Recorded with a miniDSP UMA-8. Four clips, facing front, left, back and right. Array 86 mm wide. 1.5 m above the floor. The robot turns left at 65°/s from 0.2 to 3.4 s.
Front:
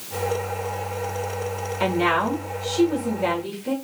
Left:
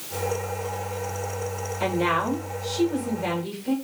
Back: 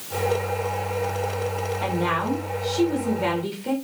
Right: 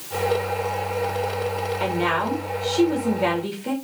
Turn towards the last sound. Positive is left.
turn(degrees=-120)